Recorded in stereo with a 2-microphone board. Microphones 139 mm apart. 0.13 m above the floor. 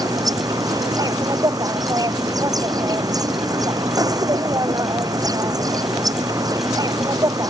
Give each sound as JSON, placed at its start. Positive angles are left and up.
{"t": 0.0, "sound": "an insect", "side_deg": -30}